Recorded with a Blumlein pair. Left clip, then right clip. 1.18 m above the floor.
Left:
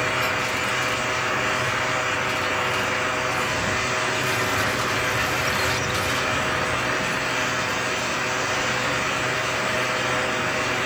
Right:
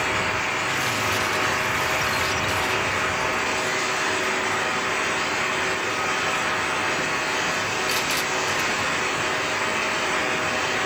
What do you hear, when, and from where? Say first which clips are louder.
0.0 s a fan: even; 45° right, 0.8 m